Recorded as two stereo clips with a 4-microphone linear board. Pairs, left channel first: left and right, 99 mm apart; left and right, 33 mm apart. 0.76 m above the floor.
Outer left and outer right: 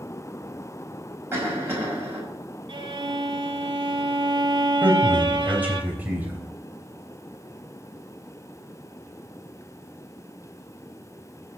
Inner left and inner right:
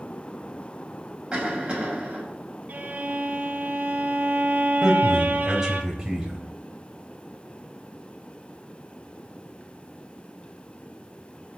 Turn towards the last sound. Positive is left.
turn(degrees=-15)  # may be behind; listen again after turning